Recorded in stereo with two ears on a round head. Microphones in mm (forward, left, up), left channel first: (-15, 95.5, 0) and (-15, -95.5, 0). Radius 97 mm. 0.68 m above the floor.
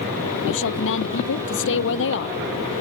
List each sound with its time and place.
0.5 s a woman speaking: 65° left (ahead or behind); by 2.4 s 60° left (ahead or behind)